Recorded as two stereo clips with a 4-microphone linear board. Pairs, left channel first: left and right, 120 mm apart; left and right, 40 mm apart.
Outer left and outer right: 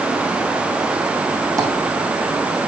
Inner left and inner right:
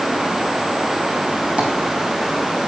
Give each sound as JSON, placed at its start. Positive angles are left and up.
{"t": 1.6, "sound": "tapping", "side_deg": -30, "distance_m": 1.6}